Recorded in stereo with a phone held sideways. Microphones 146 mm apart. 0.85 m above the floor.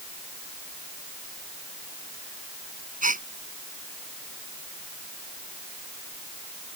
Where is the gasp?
65° right (ahead or behind).